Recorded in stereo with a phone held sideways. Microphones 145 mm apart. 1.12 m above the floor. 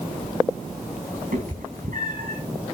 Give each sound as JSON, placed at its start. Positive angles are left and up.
{"t": 1.3, "sound": "a cat meowing", "side_deg": -70, "distance_m": 4.0}